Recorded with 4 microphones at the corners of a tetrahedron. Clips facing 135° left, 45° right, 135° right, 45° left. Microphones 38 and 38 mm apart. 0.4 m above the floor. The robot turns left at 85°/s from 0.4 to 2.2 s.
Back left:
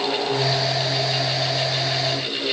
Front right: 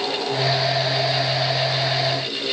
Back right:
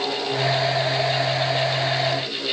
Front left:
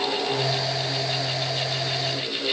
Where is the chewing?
No chewing in this recording.